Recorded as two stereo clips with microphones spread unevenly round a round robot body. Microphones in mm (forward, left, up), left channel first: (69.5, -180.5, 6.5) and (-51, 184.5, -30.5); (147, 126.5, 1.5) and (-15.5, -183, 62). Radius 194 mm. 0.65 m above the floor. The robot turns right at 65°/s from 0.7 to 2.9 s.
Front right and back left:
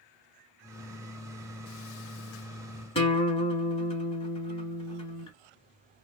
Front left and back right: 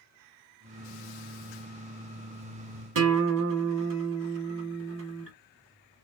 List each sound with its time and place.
3.0 s a guitar: 145° right, 1.1 m